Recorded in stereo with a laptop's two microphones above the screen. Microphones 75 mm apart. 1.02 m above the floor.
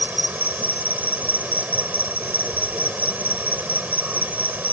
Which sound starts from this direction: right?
An insect, at 0.0 s.